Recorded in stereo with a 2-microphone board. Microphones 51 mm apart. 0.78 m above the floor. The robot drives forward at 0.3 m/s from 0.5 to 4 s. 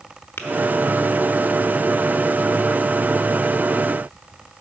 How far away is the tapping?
About 0.8 m.